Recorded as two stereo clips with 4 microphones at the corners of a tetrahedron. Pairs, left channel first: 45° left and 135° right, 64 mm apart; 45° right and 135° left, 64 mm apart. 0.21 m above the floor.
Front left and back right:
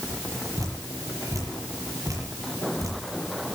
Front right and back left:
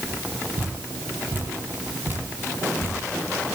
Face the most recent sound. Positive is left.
turn(degrees=-165)